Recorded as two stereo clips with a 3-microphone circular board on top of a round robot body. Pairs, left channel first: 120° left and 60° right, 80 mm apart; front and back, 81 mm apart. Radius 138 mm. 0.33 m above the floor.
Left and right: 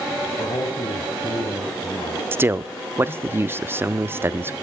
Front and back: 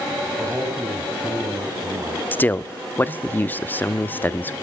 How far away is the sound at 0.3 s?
About 3 m.